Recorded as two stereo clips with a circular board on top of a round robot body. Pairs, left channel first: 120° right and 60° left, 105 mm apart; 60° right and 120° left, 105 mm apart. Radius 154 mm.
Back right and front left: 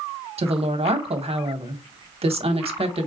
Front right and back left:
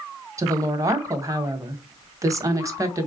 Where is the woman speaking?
65° left, 1.1 m.